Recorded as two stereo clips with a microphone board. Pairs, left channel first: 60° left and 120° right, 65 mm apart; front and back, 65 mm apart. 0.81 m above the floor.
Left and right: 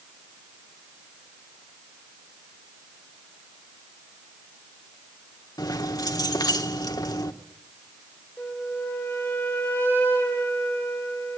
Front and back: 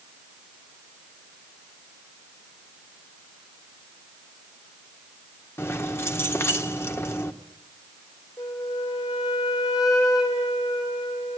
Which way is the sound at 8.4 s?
5° right.